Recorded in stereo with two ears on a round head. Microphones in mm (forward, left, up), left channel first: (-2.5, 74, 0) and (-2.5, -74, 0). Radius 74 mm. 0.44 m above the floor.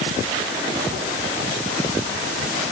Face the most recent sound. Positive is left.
No sound to turn to.